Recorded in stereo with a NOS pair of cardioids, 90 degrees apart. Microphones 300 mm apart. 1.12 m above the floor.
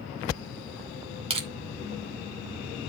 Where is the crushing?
20° right, 2.5 m.